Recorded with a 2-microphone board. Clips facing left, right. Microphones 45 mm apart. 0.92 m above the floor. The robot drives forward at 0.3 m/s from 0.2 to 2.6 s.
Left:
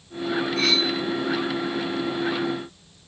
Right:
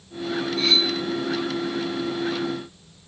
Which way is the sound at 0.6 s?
80° left.